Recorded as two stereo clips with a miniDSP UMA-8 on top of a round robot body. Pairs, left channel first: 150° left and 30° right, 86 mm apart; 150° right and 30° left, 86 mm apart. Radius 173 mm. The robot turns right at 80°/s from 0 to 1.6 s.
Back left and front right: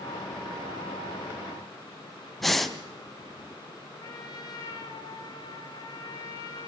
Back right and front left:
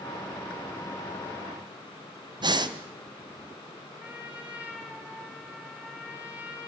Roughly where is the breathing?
Ahead left.